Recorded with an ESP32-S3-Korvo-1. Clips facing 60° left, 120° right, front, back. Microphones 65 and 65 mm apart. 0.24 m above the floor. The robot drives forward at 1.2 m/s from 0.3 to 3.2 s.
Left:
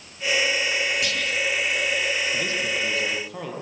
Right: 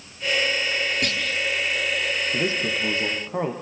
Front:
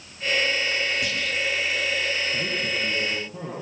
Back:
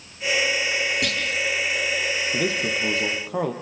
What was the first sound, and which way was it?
A clunk, 165° right.